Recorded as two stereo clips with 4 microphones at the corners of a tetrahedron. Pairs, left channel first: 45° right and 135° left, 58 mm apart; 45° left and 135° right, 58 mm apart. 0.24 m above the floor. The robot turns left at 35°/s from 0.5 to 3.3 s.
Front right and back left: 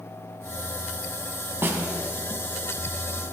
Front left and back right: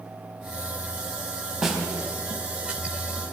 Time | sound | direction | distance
1.6 | a snare drum | 145° left | 2 m